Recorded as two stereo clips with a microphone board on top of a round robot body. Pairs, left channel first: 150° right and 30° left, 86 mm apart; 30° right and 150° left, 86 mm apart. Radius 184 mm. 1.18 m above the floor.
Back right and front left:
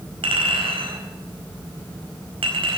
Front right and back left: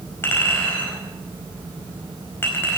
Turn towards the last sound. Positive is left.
turn(degrees=35)